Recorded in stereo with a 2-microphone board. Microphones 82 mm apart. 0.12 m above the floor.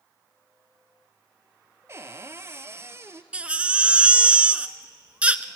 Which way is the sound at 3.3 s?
15° right (ahead or behind).